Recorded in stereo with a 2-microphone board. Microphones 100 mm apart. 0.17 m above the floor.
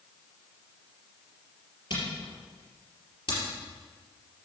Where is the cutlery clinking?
No cutlery clinking in this recording.